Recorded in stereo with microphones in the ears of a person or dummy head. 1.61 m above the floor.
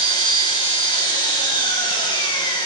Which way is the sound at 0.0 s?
25° left (ahead or behind).